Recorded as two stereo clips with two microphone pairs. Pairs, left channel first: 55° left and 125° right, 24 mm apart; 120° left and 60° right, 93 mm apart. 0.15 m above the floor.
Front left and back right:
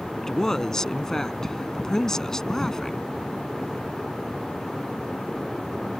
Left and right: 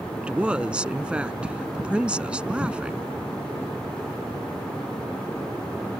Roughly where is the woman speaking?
Ahead.